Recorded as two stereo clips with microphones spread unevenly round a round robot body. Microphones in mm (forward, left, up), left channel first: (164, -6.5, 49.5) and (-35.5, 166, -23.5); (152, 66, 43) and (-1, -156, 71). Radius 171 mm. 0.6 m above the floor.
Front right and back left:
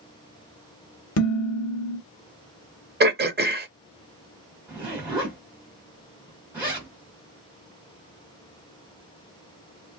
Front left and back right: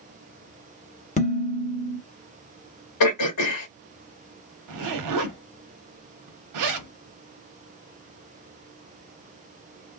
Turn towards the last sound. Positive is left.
turn(degrees=-140)